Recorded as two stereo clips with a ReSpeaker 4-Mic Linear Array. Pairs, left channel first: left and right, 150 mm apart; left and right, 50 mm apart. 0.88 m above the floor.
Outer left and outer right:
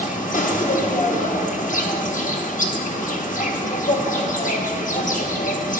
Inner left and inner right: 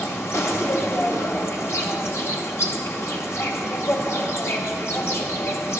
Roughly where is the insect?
Left.